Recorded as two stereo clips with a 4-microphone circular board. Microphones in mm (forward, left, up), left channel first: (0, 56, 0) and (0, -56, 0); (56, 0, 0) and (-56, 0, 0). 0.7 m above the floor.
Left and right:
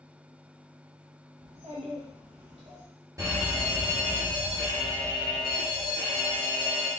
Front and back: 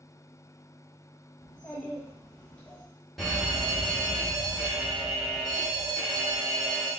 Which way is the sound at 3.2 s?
90° right.